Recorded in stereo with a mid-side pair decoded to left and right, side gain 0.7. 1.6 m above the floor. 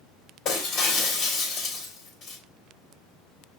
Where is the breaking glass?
50° left, 2.5 m.